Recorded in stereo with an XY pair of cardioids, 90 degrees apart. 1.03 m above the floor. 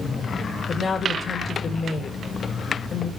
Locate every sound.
0.7 s a woman speaking: 55° left, 4 m